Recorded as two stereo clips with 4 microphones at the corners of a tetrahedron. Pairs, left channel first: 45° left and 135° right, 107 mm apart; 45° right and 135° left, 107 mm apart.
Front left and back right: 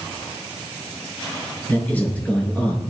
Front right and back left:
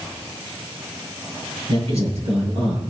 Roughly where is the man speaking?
Behind left.